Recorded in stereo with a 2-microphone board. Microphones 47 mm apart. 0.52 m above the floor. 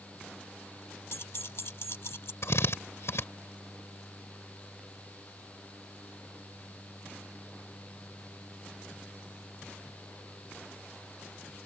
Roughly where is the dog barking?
I don't hear a dog barking.